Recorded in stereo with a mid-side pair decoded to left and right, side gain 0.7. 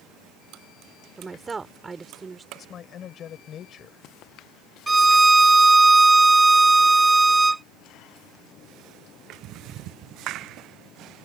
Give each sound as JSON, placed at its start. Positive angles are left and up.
{"t": 1.2, "sound": "a woman speaking", "azimuth_deg": -20}
{"t": 2.5, "sound": "a man speaking", "azimuth_deg": 40}
{"t": 4.9, "sound": "a violin", "azimuth_deg": -10}